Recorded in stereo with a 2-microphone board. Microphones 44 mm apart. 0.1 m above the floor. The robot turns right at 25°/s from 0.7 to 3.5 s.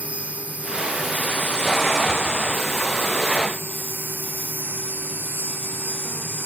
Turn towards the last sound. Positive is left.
turn(degrees=-75)